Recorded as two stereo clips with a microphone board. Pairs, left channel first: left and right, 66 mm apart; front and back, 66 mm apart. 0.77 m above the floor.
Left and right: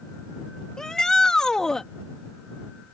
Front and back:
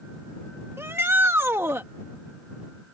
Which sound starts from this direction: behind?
A shout, at 0.8 s.